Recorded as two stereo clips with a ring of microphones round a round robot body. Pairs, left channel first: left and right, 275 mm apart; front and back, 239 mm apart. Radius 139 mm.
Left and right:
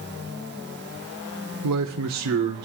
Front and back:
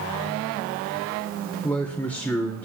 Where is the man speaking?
85° right, 1.3 m.